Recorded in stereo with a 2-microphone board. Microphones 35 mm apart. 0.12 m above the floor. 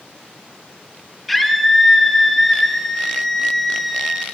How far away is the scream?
About 2 m.